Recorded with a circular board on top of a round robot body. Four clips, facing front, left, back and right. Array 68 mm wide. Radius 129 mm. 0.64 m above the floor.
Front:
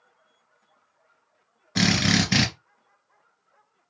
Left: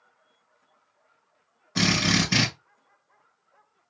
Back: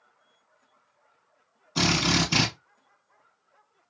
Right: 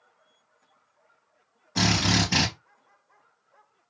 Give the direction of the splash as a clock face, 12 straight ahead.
No splash in this recording.